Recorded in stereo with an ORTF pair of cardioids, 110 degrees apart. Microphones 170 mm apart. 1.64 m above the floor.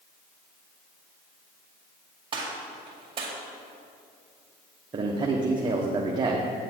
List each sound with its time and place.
2.3 s a gunshot: 30° right, 2 m
4.9 s a man speaking: 30° right, 0.9 m